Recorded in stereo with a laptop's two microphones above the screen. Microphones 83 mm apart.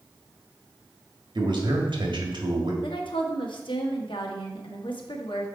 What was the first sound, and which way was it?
A man speaking, 70° right (ahead or behind).